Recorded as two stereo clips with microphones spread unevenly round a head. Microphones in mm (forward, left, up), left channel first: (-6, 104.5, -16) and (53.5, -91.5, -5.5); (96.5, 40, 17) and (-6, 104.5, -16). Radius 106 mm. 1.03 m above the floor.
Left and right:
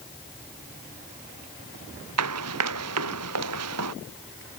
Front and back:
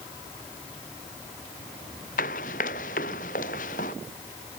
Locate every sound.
2.2 s running footsteps: 70° right; by 3.9 s 75° right